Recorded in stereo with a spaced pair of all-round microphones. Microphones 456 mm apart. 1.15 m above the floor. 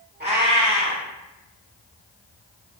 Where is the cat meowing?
20° right (ahead or behind), 0.8 m.